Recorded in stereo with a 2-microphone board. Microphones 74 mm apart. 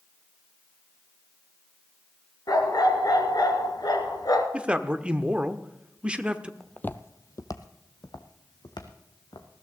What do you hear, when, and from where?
2.5 s a dog barking: 65° left (ahead or behind), 1.8 m
4.5 s a man speaking: 15° right (ahead or behind), 0.8 m
6.6 s footsteps: 10° left (ahead or behind), 0.6 m; by 9.5 s 70° left (ahead or behind), 2 m